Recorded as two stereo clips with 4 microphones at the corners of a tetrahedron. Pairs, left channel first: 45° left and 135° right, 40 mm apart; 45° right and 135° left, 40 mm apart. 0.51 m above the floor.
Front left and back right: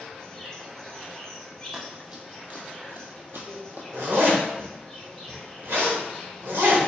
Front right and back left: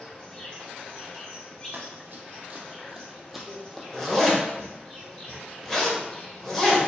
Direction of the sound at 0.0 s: 30° right.